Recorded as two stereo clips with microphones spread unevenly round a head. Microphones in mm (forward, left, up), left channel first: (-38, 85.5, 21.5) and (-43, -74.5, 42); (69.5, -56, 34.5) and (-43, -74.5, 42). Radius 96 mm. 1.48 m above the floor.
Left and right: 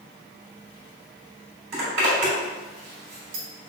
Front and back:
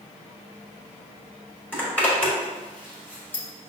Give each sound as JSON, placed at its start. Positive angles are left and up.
{"t": 1.7, "sound": "a zipper", "azimuth_deg": -65, "distance_m": 1.8}